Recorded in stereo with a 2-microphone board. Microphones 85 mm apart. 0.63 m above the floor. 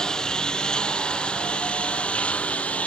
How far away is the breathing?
No breathing in this recording.